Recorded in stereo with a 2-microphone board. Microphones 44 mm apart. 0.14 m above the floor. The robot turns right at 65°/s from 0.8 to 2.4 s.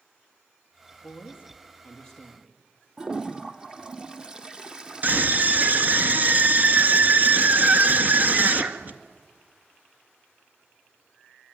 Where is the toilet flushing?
15° right (ahead or behind), 1.4 m.